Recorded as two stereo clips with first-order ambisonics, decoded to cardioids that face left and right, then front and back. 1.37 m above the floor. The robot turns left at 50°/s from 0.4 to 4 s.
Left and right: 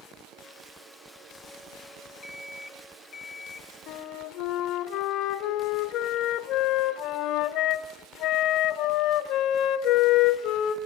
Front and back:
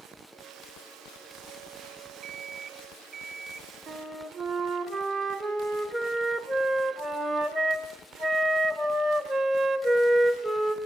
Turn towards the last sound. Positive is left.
turn(degrees=95)